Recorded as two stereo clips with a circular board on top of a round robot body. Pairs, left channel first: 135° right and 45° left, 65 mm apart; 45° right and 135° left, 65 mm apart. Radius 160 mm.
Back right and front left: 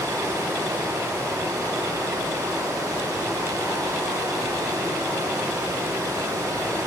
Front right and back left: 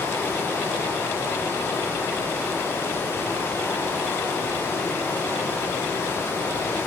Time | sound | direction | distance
0.0 | running water | 10° left | 6 m